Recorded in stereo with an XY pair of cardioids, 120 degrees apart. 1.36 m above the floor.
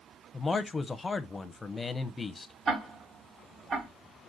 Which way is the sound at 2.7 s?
45° right.